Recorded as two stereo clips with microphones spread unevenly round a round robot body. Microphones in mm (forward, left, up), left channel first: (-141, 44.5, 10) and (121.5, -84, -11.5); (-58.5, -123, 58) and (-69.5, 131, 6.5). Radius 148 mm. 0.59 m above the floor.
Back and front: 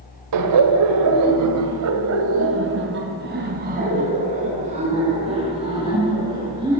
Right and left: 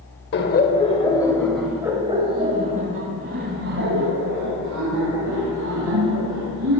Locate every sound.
0.3 s laughter: 30° right, 2 m; by 6.8 s 50° left, 7.5 m